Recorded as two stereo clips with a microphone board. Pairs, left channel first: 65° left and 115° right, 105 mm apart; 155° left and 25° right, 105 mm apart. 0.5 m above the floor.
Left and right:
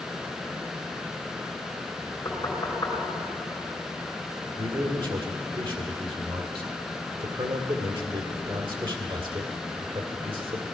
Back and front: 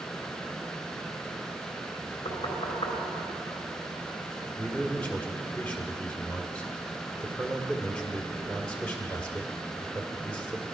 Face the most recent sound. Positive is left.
turn(degrees=-125)